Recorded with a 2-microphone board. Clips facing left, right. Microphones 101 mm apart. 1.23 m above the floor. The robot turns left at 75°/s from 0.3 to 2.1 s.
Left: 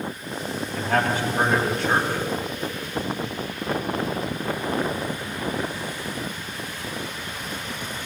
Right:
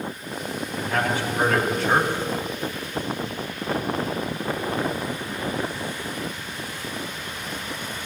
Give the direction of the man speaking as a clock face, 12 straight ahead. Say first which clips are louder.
Left 2 dB; 9 o'clock.